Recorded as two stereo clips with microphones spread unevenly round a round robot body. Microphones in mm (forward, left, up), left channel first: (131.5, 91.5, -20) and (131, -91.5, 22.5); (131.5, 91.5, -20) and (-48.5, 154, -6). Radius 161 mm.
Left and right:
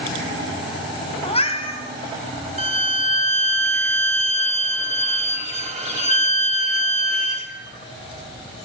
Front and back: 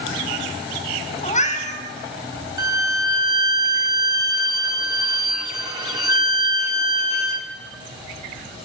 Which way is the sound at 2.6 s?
140° right.